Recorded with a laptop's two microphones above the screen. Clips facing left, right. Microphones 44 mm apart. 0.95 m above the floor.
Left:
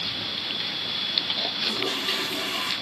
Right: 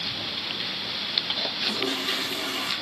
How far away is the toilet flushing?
About 7 m.